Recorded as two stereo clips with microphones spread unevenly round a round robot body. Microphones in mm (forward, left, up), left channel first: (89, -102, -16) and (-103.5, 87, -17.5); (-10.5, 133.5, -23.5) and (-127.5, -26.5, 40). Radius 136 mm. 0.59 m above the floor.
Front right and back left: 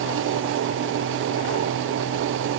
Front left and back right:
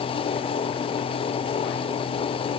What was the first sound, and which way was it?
Only background noise.